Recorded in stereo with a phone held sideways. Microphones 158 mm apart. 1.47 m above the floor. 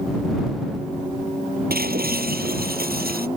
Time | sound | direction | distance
1.7 | breaking glass | 85° right | ?